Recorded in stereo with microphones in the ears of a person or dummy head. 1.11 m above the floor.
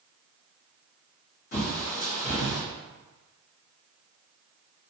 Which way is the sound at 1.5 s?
45° left (ahead or behind).